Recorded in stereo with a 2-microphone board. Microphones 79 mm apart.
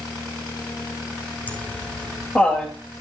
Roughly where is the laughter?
Centre.